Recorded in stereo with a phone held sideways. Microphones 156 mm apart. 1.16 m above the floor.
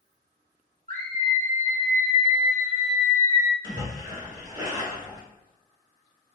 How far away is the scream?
About 1.3 m.